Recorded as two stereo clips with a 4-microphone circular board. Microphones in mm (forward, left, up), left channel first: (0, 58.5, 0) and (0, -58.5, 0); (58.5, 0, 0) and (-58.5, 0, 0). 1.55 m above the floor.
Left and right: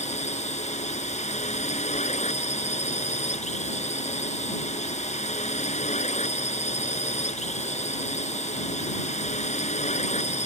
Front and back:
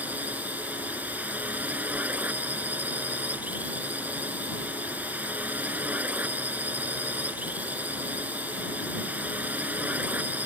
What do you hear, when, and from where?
0.0 s a drone: 105° left